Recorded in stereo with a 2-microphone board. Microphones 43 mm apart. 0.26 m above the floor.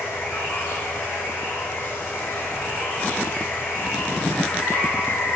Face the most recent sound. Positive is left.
turn(degrees=75)  # may be behind; listen again after turning